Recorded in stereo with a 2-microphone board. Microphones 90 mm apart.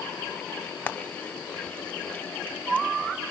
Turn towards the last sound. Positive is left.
turn(degrees=20)  # may be behind; listen again after turning